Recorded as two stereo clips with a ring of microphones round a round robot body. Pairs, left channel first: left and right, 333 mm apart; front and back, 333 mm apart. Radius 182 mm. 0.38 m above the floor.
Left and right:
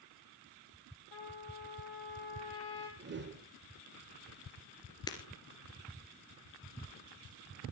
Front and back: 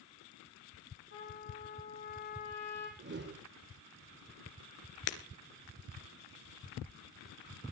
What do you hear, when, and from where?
1.1 s a trumpet: 60° left, 4.5 m
3.0 s a whoosh: 135° right, 1.4 m
5.1 s breaking glass: 10° left, 1.8 m